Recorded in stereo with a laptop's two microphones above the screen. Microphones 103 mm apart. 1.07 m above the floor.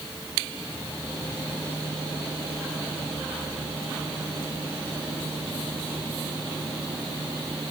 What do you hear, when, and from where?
Only background noise.